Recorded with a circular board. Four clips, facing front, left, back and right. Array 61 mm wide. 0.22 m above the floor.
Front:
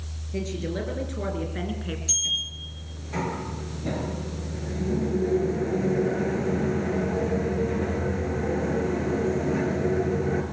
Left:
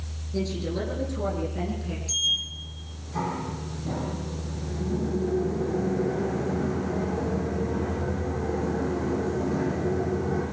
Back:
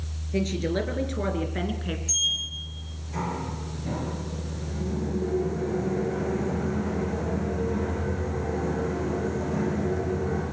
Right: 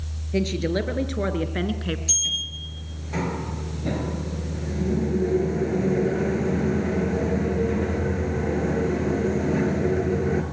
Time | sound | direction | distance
0.3 | a woman speaking | 110° right | 3.5 m
2.1 | a sliding door | 60° right | 4 m